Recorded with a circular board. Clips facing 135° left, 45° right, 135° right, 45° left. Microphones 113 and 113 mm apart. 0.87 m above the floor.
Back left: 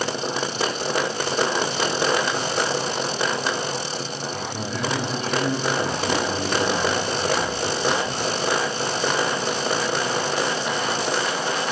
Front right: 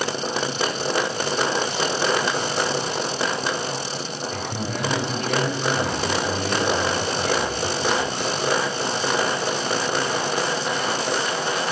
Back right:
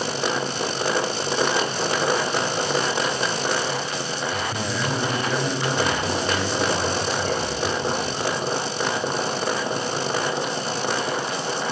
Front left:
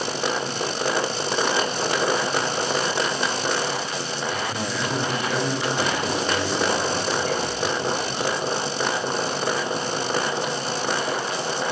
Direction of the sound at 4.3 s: 35° right.